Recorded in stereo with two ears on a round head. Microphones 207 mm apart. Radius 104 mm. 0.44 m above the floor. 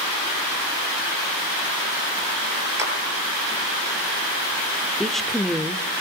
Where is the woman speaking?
Centre (ahead or behind), 1.0 m.